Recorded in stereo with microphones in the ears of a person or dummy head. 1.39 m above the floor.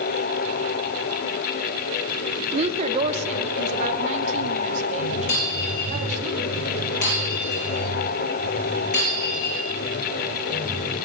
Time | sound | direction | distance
2.5 | a woman speaking | 35° right (ahead or behind) | 0.5 m
5.3 | breaking glass | 65° left (ahead or behind) | 6.5 m